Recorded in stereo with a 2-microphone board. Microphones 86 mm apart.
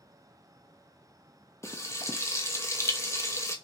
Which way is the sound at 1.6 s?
35° left (ahead or behind).